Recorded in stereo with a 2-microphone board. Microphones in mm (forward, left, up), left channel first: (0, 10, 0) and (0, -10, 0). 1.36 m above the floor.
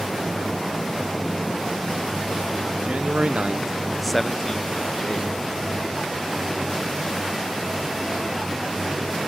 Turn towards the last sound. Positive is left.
turn(degrees=40)  # may be behind; listen again after turning